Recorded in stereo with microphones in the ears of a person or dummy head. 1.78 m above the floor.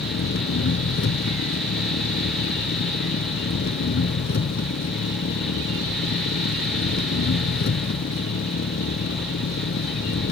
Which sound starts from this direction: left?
An engine running, at 0.0 s.